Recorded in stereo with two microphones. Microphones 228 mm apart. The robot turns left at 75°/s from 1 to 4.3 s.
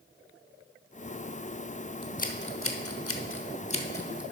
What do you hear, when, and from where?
2.0 s scissors: 20° left (ahead or behind), 0.8 m; by 4.2 s 5° right (ahead or behind), 0.8 m